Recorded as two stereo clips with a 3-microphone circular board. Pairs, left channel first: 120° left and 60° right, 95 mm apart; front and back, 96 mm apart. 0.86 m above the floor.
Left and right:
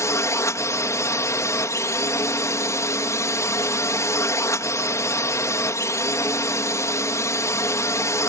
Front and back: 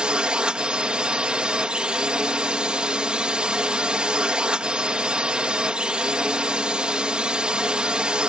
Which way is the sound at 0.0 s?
110° left.